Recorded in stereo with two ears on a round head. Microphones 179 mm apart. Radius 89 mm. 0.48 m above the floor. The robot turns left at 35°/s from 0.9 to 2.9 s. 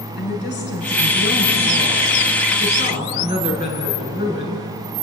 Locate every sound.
0.1 s a woman speaking: 120° left, 6.5 m; by 4.7 s 50° left, 6.5 m